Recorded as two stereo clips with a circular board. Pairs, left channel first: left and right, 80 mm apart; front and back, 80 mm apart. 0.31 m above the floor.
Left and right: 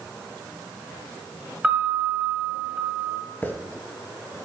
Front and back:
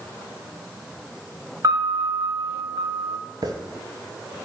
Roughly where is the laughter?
No laughter in this recording.